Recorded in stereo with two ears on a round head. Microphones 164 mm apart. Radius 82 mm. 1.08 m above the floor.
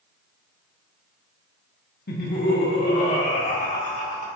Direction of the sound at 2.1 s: 50° left (ahead or behind).